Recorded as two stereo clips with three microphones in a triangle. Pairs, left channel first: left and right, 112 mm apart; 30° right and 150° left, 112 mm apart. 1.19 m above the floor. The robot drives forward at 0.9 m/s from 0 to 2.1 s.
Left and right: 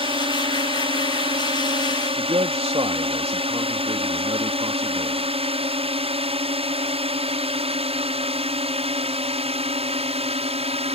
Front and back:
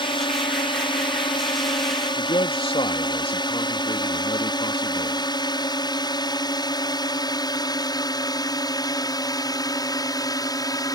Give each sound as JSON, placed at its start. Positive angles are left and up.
{"t": 0.0, "sound": "a drone", "azimuth_deg": -65}
{"t": 2.2, "sound": "a man speaking", "azimuth_deg": -60}